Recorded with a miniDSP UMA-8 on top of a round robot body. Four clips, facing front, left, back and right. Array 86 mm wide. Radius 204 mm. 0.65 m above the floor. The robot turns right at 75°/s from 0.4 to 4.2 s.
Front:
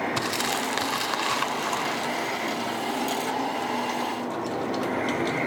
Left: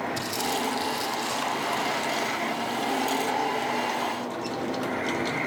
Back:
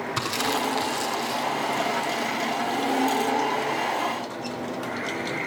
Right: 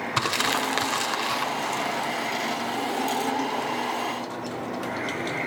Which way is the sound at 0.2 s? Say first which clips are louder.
Right 3 dB, back 1 dB; 90° right.